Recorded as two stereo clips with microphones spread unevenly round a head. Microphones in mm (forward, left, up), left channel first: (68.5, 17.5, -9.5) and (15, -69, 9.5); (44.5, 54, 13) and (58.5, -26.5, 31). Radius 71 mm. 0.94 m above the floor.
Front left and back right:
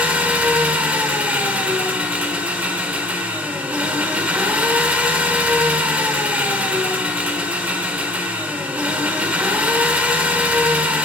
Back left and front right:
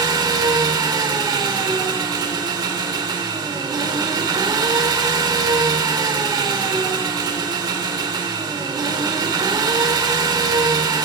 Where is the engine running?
45° right, 1.4 m.